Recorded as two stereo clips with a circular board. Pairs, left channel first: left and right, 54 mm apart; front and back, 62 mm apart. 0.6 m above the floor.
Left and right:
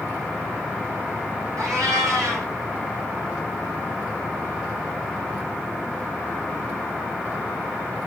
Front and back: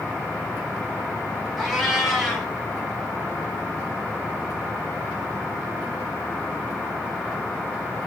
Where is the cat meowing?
90° right, 2.0 m.